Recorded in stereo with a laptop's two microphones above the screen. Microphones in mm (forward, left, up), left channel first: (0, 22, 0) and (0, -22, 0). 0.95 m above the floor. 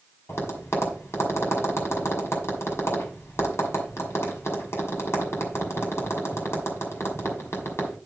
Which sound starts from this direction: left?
Tapping, at 0.3 s.